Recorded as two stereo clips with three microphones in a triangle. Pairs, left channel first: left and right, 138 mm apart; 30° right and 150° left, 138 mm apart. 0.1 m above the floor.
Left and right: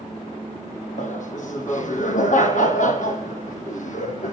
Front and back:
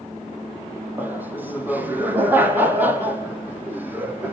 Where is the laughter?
75° left, 4 m.